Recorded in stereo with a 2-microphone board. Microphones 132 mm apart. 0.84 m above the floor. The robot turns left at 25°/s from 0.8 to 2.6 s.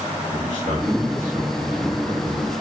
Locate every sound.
0.3 s a man speaking: 105° right, 5 m; by 2.5 s 150° right, 5 m